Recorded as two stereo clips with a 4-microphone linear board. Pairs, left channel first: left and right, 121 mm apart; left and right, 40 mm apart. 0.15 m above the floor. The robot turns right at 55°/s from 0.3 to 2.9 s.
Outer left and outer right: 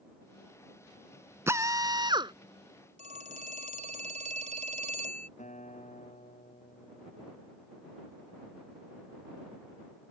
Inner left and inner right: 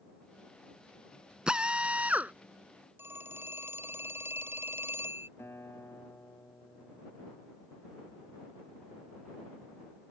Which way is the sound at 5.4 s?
80° left.